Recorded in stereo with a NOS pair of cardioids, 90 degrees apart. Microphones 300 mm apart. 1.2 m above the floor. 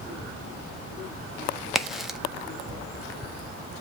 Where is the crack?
Straight ahead, 0.7 m.